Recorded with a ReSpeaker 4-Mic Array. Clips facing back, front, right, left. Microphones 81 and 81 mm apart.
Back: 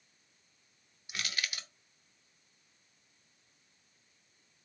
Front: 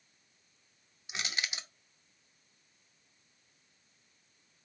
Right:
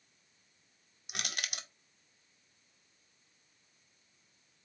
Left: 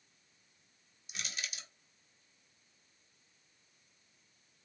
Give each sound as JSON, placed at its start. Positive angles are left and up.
{"t": 1.1, "sound": "crushing", "azimuth_deg": -65, "distance_m": 0.5}